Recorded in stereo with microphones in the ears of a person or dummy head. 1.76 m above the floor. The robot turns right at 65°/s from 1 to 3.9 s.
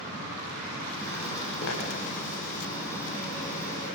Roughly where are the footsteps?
Left.